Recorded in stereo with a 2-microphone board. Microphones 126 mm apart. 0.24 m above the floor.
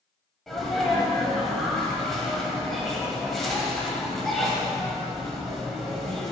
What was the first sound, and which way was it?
A sneeze, centre (ahead or behind).